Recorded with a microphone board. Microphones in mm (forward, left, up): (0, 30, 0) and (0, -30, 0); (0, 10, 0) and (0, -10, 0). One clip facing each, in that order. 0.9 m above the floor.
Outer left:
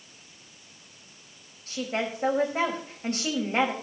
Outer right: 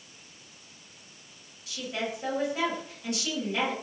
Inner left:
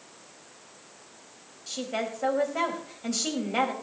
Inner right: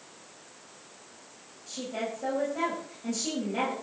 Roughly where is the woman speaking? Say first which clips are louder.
Outer left 4 dB, inner left 3 dB; left.